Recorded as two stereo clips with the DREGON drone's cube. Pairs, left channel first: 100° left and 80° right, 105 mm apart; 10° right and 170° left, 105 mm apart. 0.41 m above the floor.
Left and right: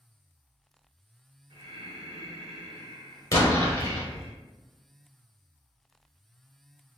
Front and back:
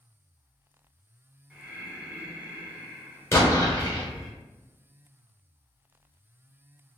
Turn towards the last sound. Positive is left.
turn(degrees=45)